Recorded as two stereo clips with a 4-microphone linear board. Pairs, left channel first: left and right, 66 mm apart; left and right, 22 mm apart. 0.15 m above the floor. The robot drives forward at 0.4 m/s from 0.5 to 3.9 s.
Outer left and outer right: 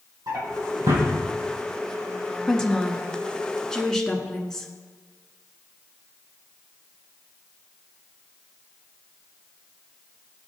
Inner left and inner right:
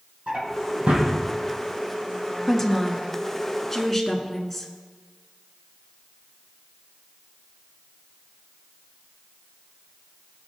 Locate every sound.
0.3 s a drawer: 60° right (ahead or behind), 4 m; by 1.1 s 65° right (ahead or behind), 4 m
2.5 s a woman speaking: 10° left (ahead or behind), 1.2 m